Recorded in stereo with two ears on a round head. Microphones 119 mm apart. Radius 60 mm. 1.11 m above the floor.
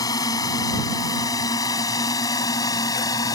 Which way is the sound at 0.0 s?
25° left (ahead or behind).